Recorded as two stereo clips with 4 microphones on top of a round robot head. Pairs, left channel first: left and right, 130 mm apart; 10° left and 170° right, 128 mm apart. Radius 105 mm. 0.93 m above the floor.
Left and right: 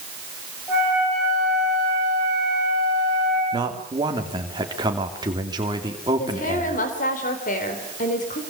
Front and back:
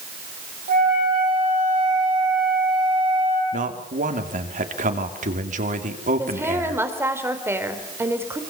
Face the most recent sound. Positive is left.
turn(degrees=115)